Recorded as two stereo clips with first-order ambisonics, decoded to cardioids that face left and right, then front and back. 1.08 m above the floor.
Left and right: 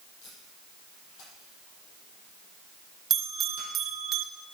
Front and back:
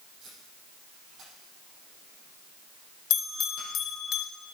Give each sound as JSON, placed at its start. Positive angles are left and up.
{"t": 0.2, "sound": "tape being pulled", "azimuth_deg": 115, "distance_m": 7.0}
{"t": 3.1, "sound": "a bell", "azimuth_deg": -30, "distance_m": 1.5}